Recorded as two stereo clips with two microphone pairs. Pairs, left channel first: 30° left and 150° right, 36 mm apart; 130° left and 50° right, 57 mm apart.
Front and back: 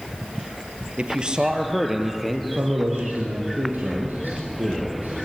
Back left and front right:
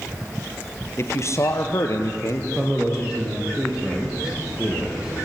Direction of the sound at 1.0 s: 155° left.